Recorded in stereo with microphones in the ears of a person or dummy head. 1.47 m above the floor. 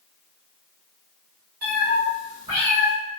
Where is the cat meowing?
50° right (ahead or behind), 2.0 m; by 2.9 s 25° right (ahead or behind), 1.6 m.